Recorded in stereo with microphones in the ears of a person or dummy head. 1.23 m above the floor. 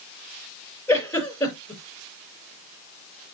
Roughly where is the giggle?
Centre.